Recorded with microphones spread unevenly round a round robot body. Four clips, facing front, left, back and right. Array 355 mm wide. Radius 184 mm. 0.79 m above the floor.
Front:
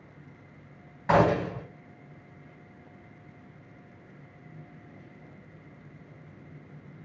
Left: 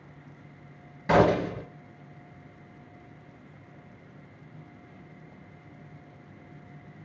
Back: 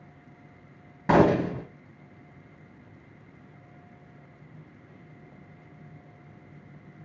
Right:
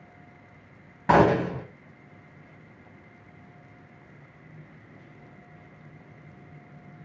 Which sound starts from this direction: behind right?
A gunshot, at 1.1 s.